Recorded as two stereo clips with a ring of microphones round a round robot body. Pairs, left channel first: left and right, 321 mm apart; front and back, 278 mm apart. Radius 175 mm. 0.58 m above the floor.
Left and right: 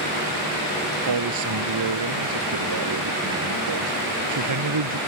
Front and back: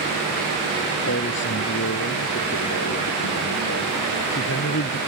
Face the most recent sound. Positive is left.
turn(degrees=-55)